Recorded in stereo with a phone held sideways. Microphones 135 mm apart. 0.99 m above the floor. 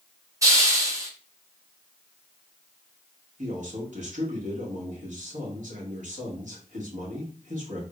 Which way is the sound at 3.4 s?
70° right (ahead or behind).